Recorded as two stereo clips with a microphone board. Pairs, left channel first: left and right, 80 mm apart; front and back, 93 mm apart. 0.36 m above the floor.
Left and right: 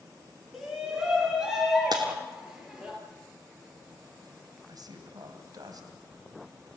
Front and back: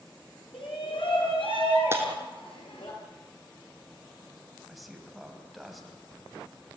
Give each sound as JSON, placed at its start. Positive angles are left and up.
{"t": 0.5, "sound": "a shout", "azimuth_deg": -5, "distance_m": 5.5}
{"t": 1.9, "sound": "breaking glass", "azimuth_deg": -115, "distance_m": 3.5}
{"t": 4.7, "sound": "a man speaking", "azimuth_deg": -90, "distance_m": 2.5}